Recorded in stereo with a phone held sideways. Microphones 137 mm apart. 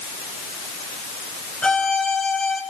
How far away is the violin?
About 4 m.